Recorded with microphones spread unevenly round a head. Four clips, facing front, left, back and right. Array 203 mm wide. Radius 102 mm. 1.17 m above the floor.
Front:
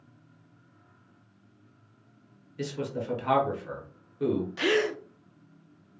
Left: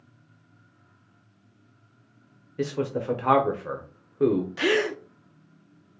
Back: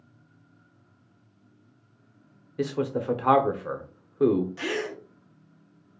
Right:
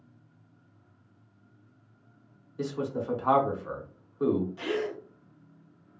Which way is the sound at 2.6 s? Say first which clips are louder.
Left 4 dB, back 6 dB; 130° left.